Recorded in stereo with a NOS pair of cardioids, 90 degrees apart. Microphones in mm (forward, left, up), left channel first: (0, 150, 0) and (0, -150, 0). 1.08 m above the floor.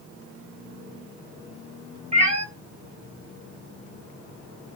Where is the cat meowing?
20° right, 0.9 m.